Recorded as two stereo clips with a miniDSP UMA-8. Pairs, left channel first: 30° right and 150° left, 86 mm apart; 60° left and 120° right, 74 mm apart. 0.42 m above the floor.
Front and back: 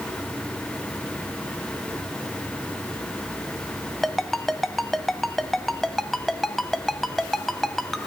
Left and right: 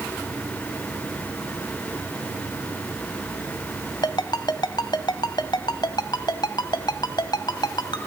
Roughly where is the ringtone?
Ahead left.